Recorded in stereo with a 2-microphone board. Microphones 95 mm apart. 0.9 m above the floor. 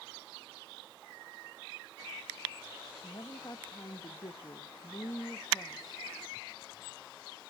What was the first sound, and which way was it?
A woman speaking, 45° left (ahead or behind).